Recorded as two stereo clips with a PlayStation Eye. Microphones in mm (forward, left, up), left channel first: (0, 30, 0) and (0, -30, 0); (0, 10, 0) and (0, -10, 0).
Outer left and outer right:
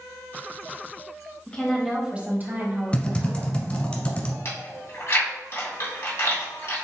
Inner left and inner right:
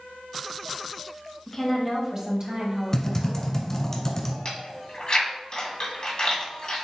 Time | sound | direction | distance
1.5 | a woman speaking | 20° left (ahead or behind) | 1.2 m
2.9 | typing on a keyboard | 25° left (ahead or behind) | 1.2 m
4.5 | chewing | 50° left (ahead or behind) | 2 m